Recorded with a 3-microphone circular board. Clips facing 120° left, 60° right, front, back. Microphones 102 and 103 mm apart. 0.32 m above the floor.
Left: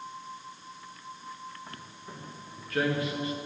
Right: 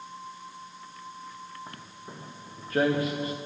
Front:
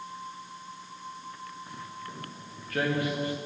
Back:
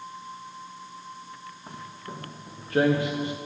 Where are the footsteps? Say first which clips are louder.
Right 1 dB, back 1 dB; 130° right, 2.5 m; by 3.4 s 110° right, 1.6 m.